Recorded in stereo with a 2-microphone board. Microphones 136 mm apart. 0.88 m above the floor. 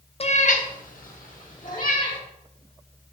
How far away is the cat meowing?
About 0.6 m.